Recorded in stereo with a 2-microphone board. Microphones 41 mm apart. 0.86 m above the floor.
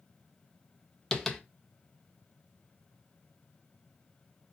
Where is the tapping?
10° left (ahead or behind), 0.7 m.